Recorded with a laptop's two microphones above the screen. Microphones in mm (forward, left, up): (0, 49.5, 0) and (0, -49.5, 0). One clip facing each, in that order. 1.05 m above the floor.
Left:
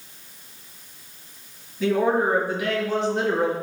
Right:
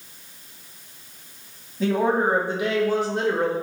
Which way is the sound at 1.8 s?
35° right (ahead or behind).